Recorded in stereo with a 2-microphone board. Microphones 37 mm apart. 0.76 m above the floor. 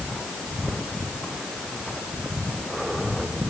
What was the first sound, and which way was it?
Only background noise.